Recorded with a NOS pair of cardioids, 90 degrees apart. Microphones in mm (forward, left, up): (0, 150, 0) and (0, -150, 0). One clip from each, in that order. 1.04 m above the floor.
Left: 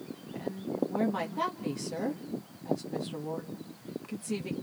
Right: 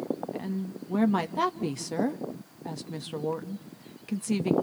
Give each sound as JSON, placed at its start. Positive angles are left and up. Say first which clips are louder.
{"t": 0.3, "sound": "a woman speaking", "louder": "left 2 dB", "azimuth_deg": -45, "distance_m": 1.3}